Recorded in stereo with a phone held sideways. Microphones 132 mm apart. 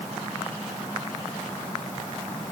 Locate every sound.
Only background noise.